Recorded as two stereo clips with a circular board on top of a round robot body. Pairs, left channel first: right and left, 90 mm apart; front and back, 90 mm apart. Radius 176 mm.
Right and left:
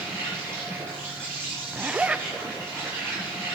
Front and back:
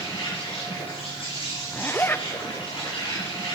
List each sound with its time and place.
0.0 s an insect: 25° left, 7.5 m
1.7 s a zipper: 30° left, 0.7 m